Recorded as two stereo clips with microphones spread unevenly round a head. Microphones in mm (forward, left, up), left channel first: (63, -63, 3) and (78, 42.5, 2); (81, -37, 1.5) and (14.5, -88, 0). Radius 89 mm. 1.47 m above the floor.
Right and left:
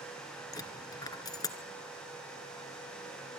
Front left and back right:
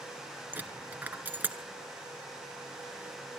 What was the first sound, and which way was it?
A dropped coin, 95° right.